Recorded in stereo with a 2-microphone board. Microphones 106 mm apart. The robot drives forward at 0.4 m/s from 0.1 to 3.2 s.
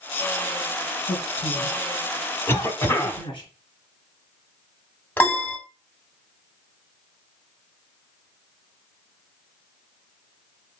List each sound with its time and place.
1.1 s a man speaking: 55° left (ahead or behind), 2.5 m; by 3.5 s 50° left (ahead or behind), 2.5 m
2.5 s a cough: 25° left (ahead or behind), 1.0 m
5.2 s a piano: 20° left (ahead or behind), 0.7 m